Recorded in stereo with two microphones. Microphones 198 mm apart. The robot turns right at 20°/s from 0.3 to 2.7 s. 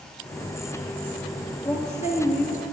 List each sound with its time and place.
1.6 s a woman speaking: 30° left (ahead or behind), 2.5 m; by 2.6 s 45° left (ahead or behind), 2.5 m